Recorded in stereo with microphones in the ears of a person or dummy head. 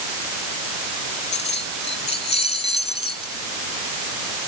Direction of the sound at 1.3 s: 35° left (ahead or behind).